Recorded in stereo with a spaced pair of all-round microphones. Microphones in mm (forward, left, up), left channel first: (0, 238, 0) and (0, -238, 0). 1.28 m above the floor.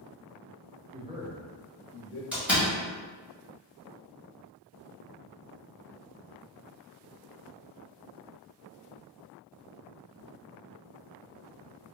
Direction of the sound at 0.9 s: 20° right (ahead or behind).